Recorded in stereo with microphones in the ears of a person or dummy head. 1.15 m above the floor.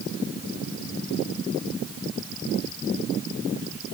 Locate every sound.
Only background noise.